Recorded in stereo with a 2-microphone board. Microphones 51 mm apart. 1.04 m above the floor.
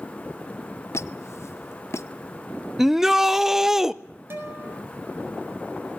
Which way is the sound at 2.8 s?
5° right (ahead or behind).